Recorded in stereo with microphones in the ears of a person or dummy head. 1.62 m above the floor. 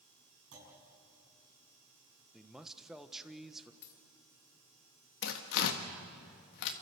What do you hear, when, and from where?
0.5 s a clunk: 80° right, 6.5 m
2.3 s a man speaking: 5° left (ahead or behind), 1.1 m
3.8 s a dropped coin: 60° left (ahead or behind), 2 m
5.2 s tearing paper: 65° left (ahead or behind), 1.6 m